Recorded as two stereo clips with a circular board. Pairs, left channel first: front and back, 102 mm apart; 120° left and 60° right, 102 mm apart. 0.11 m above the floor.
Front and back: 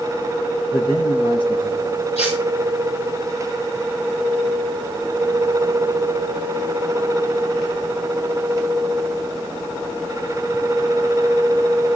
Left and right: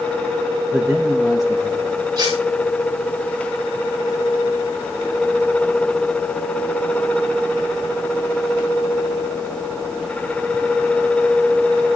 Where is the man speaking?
25° left, 5.5 m; by 2.0 s 30° left, 6 m.